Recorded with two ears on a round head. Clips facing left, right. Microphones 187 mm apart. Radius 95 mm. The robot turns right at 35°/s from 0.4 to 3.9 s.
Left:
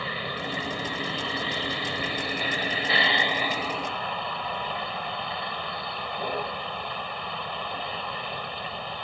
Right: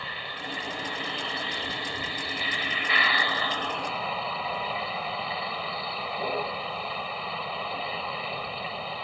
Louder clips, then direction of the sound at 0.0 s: Left 6 dB; 60° left.